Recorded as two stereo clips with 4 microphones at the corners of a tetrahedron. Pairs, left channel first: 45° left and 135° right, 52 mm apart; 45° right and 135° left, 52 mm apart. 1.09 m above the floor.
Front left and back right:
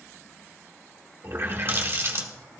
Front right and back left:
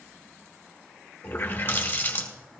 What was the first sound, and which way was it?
A running tap, 90° right.